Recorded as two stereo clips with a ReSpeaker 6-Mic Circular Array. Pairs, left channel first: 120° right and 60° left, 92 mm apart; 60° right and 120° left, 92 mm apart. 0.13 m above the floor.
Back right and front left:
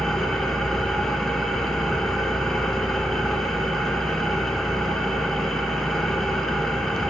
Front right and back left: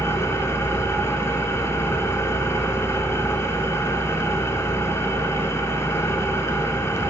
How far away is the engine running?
About 0.8 m.